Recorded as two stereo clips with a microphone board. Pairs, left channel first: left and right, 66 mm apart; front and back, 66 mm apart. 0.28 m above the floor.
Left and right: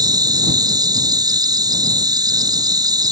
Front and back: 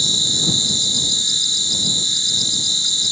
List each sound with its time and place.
0.0 s an insect: 90° right